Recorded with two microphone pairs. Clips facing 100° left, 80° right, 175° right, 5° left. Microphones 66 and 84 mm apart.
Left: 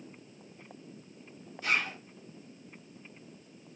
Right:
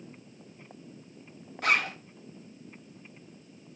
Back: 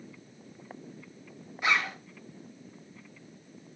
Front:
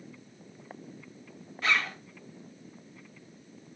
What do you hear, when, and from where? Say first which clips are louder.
1.6 s a zipper: right 4 dB, back 1 dB; 100° right, 0.7 m